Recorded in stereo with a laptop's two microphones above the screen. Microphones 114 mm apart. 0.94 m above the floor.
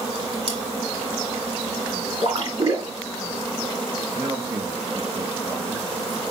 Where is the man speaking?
40° right (ahead or behind), 1.1 m.